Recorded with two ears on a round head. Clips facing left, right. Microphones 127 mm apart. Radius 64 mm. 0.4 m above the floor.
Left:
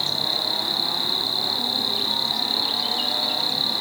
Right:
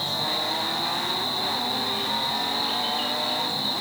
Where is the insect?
80° left, 1.5 m.